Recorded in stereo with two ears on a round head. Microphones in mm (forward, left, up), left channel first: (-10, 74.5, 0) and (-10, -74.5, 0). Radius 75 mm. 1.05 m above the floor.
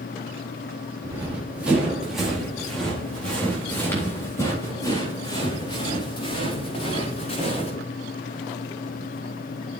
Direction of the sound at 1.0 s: 15° right (ahead or behind).